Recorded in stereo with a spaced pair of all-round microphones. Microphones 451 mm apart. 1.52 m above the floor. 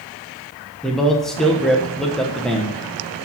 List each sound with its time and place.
0.8 s a man speaking: centre (ahead or behind), 1.3 m